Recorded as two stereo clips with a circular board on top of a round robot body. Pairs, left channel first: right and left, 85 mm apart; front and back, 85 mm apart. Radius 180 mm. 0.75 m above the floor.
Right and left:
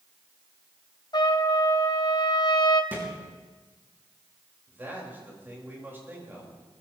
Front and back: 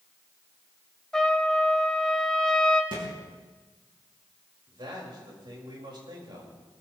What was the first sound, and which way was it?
A trumpet, 80° right.